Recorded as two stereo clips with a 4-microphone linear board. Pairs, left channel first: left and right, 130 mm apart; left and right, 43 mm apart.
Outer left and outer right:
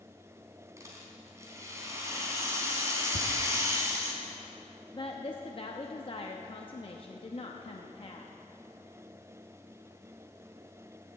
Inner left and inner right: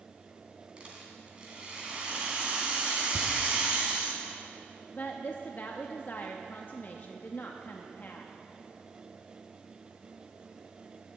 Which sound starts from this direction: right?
A rattle, at 0.8 s.